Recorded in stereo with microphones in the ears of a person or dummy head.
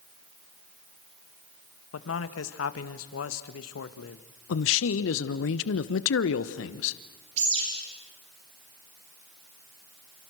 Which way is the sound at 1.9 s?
80° left.